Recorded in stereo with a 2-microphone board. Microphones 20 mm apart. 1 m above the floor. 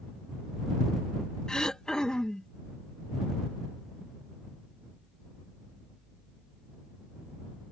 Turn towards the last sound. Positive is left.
turn(degrees=35)  # may be behind; listen again after turning